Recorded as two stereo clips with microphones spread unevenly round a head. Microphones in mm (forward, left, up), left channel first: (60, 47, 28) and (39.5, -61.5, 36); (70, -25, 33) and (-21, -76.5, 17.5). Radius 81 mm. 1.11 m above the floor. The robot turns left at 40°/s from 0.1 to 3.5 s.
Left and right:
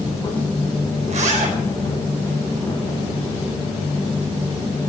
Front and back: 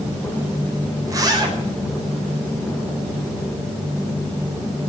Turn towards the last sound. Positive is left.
turn(degrees=170)